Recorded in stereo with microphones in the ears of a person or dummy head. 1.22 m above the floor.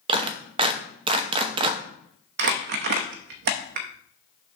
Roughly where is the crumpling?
Right.